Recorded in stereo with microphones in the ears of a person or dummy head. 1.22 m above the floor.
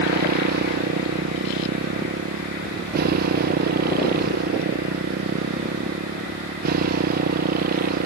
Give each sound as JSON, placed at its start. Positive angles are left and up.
{"t": 0.0, "sound": "a motorcycle", "side_deg": -50}